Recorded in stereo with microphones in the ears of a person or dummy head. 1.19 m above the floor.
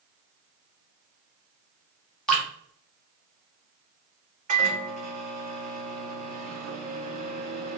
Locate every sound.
2.3 s dripping: 5° left (ahead or behind), 1.7 m
4.5 s a microwave: 40° right (ahead or behind), 1.2 m